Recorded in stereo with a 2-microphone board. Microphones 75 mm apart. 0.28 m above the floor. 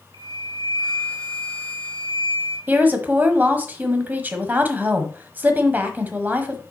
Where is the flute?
75° right (ahead or behind), 5 m.